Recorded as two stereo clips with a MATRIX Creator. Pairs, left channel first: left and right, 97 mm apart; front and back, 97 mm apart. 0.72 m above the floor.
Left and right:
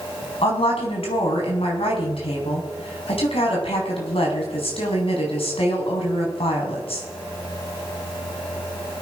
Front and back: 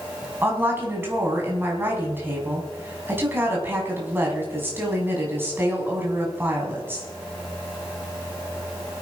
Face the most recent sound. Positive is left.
turn(degrees=110)